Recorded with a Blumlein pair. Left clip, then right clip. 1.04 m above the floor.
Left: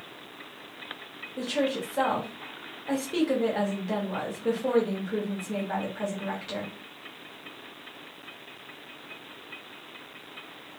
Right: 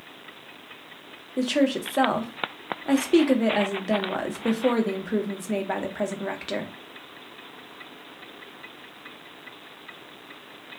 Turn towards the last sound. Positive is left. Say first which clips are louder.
# right 4 dB
turn(degrees=-65)